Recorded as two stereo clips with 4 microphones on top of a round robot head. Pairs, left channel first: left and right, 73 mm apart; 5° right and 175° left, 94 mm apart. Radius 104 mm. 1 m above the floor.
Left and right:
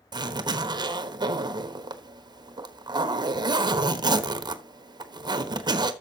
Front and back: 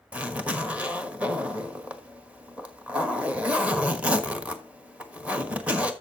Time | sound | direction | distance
0.1 | a zipper | 105° right | 1.2 m